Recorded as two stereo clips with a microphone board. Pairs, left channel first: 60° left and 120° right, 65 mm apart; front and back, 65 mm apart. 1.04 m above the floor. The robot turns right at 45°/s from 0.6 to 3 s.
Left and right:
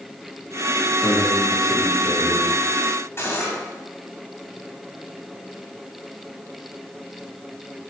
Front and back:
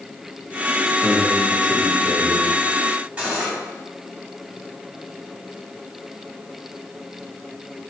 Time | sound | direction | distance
1.0 | a man speaking | 75° left | 2 m
3.2 | cutlery clinking | 115° left | 3.5 m